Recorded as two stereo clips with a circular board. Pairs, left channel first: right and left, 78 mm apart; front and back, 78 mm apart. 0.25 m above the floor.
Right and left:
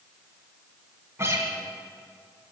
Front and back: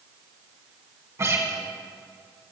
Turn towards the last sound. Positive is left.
turn(degrees=135)